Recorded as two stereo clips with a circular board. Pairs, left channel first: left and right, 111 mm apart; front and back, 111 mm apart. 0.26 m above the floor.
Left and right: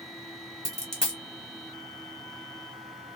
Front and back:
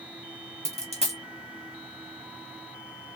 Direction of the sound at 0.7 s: 175° left.